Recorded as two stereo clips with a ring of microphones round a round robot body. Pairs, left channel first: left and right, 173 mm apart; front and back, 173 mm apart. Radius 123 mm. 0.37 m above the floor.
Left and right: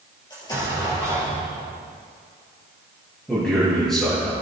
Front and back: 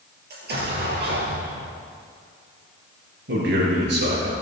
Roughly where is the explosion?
Behind.